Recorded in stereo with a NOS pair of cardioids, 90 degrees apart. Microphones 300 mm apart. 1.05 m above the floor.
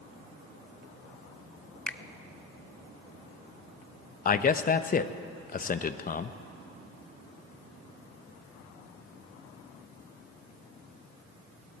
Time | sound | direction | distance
1.9 | a finger snap | 5° left | 0.5 m
4.2 | a man speaking | 30° left | 0.8 m